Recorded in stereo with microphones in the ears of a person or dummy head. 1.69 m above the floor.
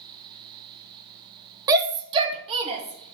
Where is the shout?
20° right (ahead or behind), 0.9 m; by 3.1 s 35° right (ahead or behind), 2.5 m.